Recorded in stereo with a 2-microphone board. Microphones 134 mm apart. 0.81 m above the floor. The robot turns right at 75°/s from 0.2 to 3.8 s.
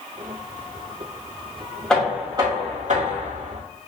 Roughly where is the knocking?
Behind.